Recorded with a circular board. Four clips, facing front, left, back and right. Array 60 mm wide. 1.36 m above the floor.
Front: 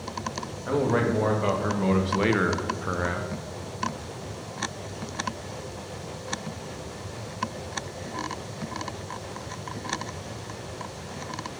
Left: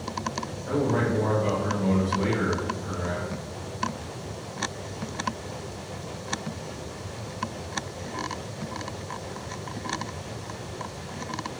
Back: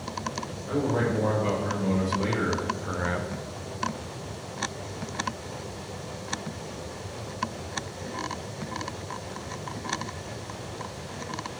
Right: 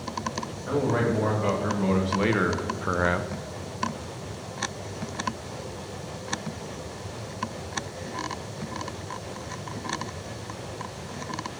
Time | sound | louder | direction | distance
0.7 | a man speaking | even, front 3 dB | 15° right | 2.5 m